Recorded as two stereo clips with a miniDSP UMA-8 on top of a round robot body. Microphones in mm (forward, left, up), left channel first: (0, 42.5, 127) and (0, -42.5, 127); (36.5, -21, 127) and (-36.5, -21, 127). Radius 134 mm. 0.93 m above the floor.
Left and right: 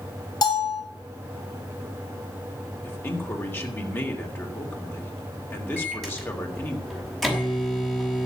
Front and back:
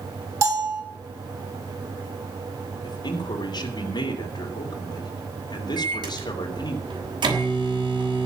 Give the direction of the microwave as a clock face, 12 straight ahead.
6 o'clock.